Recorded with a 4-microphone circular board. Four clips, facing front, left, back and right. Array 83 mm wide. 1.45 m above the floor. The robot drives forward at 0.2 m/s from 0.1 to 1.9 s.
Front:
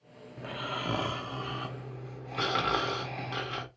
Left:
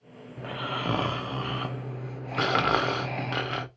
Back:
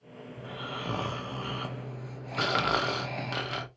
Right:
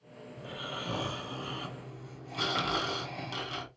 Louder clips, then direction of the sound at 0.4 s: Left 8 dB, front 2 dB; 75° left.